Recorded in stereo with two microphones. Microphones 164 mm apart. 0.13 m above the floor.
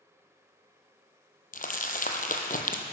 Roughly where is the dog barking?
No dog barking in this recording.